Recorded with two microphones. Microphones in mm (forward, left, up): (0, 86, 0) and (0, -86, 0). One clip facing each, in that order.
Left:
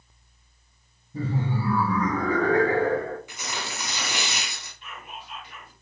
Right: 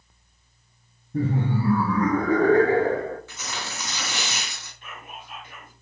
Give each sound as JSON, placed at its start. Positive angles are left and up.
{"t": 1.1, "sound": "laughter", "side_deg": -60, "distance_m": 2.0}
{"t": 3.3, "sound": "tearing paper", "side_deg": 15, "distance_m": 1.8}
{"t": 4.8, "sound": "whispering", "side_deg": -50, "distance_m": 2.5}